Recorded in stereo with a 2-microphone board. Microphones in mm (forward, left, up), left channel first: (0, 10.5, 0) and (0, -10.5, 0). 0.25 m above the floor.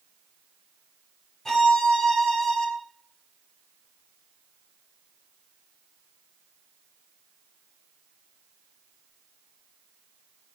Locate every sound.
1.4 s a violin: 15° left (ahead or behind), 1.3 m